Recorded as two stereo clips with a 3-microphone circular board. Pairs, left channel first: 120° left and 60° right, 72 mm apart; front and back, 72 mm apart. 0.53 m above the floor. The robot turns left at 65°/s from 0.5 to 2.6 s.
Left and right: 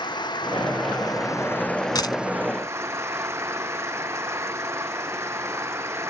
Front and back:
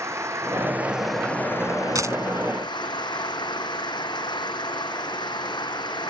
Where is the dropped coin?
140° left; by 2.2 s 130° left.